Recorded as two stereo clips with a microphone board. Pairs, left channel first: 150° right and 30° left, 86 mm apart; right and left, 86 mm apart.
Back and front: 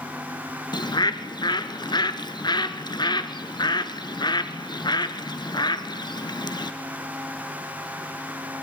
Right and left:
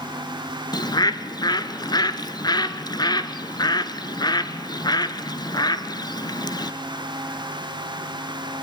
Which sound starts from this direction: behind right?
A bird, at 0.7 s.